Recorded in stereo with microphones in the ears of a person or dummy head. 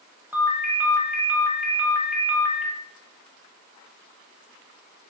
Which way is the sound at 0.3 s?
10° right (ahead or behind).